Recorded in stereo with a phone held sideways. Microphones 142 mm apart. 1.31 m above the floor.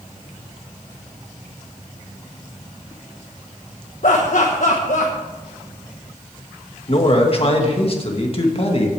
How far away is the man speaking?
About 1.8 m.